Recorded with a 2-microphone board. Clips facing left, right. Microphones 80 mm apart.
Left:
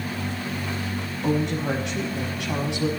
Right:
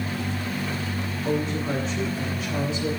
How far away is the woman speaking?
About 6.5 m.